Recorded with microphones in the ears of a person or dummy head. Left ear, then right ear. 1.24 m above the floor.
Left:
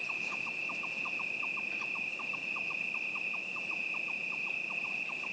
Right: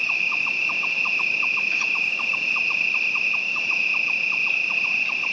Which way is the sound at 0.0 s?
55° right (ahead or behind).